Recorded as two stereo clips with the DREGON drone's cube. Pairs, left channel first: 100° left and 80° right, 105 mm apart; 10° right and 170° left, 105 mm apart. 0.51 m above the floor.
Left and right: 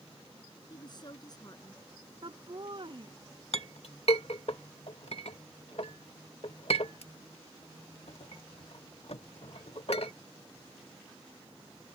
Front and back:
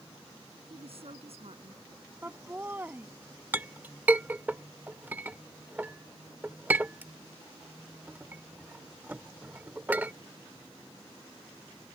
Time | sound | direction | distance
0.7 | a woman speaking | 145° left | ?
2.2 | laughter | 120° right | ?
3.5 | a clink | 100° left | ?